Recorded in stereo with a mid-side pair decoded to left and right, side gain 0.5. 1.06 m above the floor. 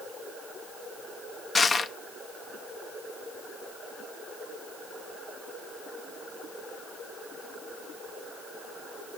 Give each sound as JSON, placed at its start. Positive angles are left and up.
{"t": 1.6, "sound": "crushing", "azimuth_deg": 35, "distance_m": 0.8}